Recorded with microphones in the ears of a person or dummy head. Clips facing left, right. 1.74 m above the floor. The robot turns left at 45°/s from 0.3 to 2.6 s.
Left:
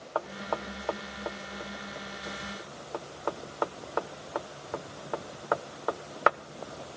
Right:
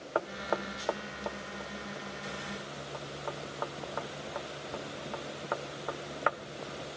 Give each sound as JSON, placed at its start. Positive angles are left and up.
{"t": 0.1, "sound": "knocking", "side_deg": -25, "distance_m": 0.8}